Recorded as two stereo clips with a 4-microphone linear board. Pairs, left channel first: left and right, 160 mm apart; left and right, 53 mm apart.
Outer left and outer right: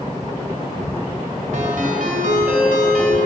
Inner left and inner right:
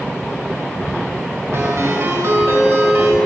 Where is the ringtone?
60° right (ahead or behind), 2.5 m.